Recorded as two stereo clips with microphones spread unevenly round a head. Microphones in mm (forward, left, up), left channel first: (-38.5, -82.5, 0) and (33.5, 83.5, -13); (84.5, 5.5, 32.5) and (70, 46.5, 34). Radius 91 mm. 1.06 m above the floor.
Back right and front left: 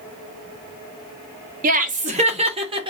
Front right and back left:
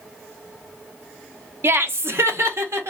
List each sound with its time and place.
1.6 s laughter: 100° left, 0.8 m; by 2.9 s 130° left, 1.3 m